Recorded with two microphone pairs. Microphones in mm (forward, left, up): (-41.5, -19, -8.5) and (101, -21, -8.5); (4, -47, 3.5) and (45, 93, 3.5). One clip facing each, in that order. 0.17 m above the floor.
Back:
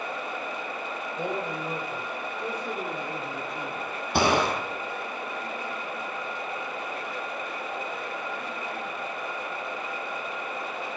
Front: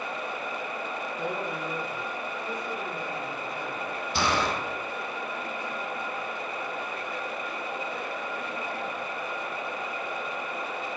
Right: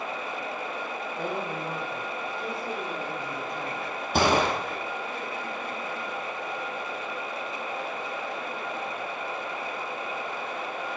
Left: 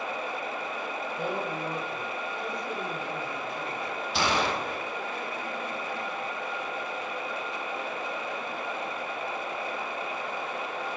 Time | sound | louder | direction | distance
1.2 | a man speaking | back 2 dB, even | 150° left | 4.5 m
4.1 | a gunshot | back 5 dB, right 5 dB | 145° right | 2 m